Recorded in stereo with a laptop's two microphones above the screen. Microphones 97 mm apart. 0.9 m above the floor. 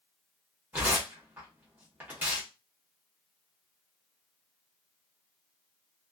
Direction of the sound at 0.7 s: 20° right (ahead or behind).